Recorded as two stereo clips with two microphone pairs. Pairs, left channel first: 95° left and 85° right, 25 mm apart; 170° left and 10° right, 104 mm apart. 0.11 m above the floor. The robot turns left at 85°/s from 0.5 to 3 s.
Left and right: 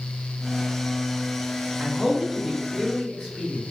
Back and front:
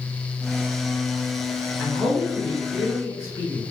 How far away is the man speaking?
About 1.3 m.